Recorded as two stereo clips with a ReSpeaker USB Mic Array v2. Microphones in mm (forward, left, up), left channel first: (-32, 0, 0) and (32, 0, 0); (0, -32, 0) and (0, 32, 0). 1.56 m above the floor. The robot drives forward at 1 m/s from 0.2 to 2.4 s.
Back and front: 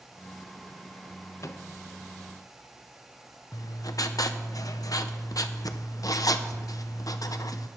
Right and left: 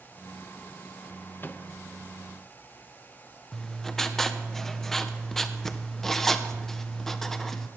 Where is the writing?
170° right, 0.8 m.